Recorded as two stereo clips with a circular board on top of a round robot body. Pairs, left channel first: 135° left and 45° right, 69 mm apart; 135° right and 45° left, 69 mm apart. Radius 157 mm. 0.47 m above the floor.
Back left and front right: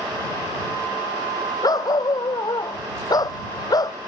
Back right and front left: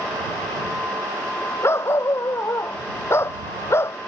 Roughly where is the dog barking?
Behind.